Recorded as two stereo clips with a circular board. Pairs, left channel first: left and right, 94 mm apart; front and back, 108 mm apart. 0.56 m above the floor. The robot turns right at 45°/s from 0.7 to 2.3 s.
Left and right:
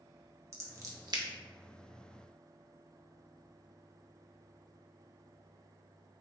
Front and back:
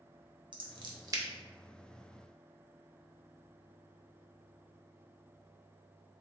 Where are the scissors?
145° right, 0.6 m; by 1.2 s 120° right, 0.6 m.